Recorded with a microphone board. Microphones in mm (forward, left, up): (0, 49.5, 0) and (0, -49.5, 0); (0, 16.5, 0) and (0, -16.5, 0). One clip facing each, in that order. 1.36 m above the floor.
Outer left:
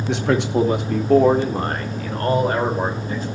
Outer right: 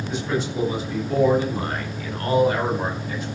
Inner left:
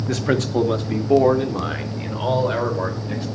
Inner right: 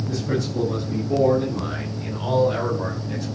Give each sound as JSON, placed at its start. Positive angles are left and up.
{"t": 0.1, "sound": "a man speaking", "side_deg": 75, "distance_m": 2.0}